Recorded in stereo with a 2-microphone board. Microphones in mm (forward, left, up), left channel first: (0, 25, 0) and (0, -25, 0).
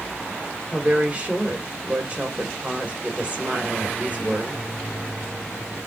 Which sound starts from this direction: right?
A woman speaking, at 0.7 s.